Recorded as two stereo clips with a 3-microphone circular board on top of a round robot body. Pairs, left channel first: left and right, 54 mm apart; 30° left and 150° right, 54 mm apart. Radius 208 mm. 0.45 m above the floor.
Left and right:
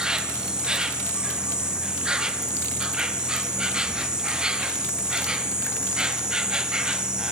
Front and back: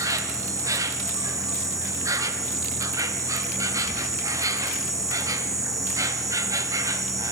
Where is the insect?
165° right, 0.9 m.